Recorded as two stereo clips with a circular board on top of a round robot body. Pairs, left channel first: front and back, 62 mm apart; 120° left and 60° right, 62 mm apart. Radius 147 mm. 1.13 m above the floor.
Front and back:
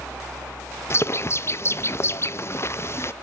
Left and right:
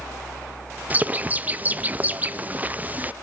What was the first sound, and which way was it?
A bird, 10° right.